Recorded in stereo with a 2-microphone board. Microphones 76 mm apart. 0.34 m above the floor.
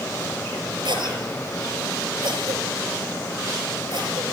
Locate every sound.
0.8 s a cough: 80° right, 6.5 m